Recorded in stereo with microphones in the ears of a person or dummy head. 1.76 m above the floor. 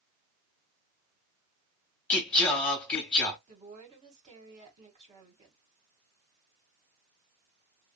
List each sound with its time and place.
2.1 s singing: 15° left (ahead or behind), 0.5 m
3.5 s a woman speaking: 35° right (ahead or behind), 1.3 m